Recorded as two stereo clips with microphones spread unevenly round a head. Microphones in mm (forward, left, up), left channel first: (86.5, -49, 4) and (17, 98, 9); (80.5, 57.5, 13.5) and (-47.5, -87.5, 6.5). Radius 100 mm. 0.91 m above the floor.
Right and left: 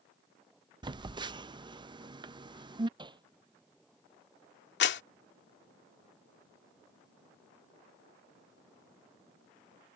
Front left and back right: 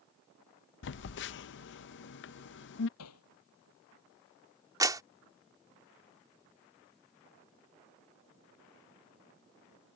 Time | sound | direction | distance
0.8 | a phone buzzing | 55° left | ?
3.0 | hammering | 55° left | ?
4.8 | a clap | 60° right | ?